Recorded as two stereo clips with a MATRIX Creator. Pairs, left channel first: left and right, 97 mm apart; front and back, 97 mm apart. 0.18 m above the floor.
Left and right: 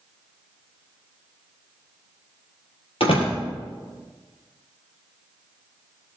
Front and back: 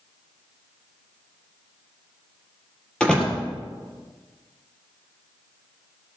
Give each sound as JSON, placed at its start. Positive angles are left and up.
{"t": 3.0, "sound": "a door slam", "azimuth_deg": 80, "distance_m": 4.0}